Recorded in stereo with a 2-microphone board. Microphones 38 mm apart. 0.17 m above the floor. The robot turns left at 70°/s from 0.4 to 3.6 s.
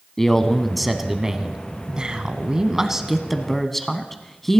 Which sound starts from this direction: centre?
A man speaking, at 0.2 s.